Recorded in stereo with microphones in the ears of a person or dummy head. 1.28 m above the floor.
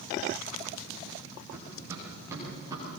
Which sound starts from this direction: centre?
Running footsteps, at 1.5 s.